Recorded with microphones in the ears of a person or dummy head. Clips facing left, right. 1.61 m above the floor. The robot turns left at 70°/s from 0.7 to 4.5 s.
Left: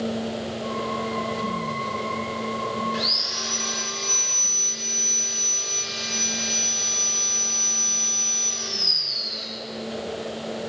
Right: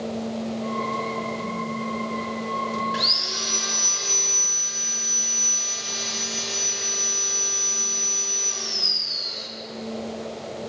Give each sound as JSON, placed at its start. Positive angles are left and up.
{"t": 2.9, "sound": "sawing", "azimuth_deg": -15, "distance_m": 0.5}